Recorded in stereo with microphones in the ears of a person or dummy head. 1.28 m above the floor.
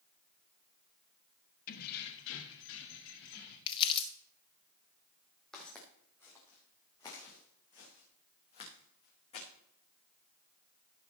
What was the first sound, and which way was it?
Keys jangling, 55° left (ahead or behind).